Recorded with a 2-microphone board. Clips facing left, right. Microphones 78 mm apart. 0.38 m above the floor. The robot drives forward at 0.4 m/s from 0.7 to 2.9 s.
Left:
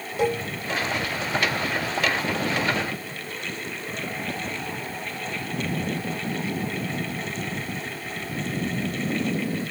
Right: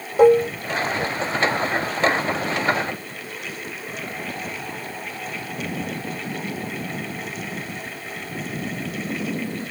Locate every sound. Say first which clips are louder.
0.2 s dishes clattering: right 12 dB; 40° right (ahead or behind), 0.8 m